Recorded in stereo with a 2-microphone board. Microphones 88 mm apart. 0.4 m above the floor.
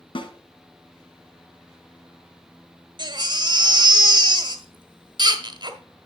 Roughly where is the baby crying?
Right.